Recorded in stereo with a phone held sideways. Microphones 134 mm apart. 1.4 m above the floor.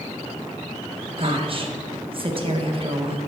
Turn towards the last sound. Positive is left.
turn(degrees=-45)  # may be behind; listen again after turning